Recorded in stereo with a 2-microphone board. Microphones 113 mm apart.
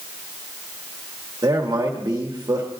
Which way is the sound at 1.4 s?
35° right (ahead or behind).